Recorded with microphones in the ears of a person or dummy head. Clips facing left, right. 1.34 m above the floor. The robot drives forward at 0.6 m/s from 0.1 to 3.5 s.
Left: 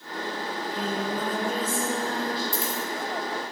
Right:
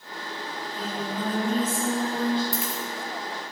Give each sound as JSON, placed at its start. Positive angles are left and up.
{"t": 0.5, "sound": "singing", "side_deg": 20, "distance_m": 0.9}
{"t": 2.5, "sound": "a dropped coin", "side_deg": -5, "distance_m": 1.0}